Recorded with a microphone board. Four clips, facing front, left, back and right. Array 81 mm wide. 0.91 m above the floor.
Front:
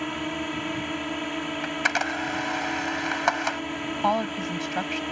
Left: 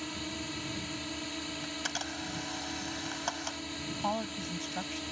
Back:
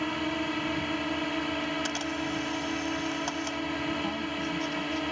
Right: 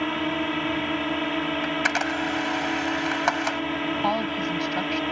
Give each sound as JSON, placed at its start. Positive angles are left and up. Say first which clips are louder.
{"t": 0.0, "sound": "a drone", "louder": "right 14 dB, even", "azimuth_deg": -90}
{"t": 1.6, "sound": "a camera shutter", "louder": "right 14 dB, front 5 dB", "azimuth_deg": -45}
{"t": 4.0, "sound": "a woman speaking", "louder": "right 6 dB, front 7 dB", "azimuth_deg": -25}